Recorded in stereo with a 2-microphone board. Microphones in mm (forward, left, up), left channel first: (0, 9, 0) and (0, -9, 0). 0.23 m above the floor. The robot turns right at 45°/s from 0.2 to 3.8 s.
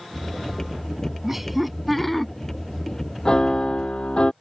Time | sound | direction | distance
1.2 | laughter | 20° right | ?
3.2 | a piano | 50° left (ahead or behind) | ?